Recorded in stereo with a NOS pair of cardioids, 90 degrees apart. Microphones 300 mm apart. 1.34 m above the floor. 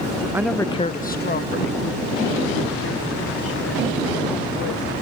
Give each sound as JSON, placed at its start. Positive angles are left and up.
{"t": 0.3, "sound": "a woman speaking", "azimuth_deg": -10}